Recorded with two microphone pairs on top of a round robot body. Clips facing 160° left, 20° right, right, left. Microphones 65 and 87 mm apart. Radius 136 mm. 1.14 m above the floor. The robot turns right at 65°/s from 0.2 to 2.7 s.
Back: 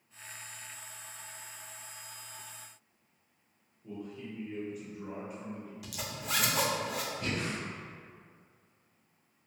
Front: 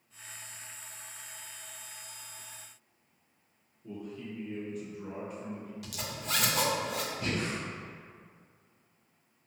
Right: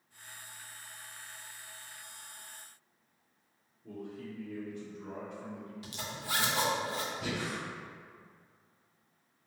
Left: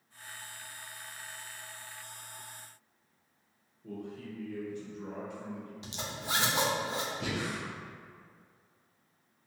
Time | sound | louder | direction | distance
3.8 | a man speaking | front 1 dB, left 1 dB | 75° left | 0.8 m
5.8 | a zipper | even, left 2 dB | 140° left | 0.6 m
7.2 | breathing | front 2 dB, left 1 dB | 60° left | 0.6 m